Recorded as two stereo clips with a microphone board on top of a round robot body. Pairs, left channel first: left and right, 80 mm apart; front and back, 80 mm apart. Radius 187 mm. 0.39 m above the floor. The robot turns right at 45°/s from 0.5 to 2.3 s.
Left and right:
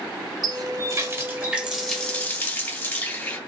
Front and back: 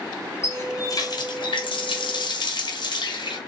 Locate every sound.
0.4 s a running tap: 60° right, 3 m; by 3.4 s 20° left, 3 m